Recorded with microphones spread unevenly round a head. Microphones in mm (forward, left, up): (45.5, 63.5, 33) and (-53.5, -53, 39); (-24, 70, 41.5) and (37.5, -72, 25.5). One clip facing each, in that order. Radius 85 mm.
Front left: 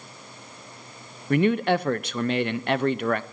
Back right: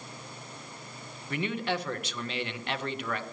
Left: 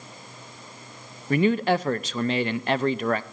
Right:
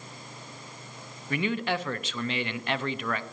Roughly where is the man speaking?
Ahead left.